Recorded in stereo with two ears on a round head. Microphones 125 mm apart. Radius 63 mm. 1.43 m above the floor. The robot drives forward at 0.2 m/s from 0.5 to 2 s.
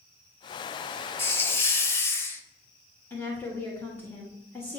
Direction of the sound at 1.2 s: 15° left (ahead or behind).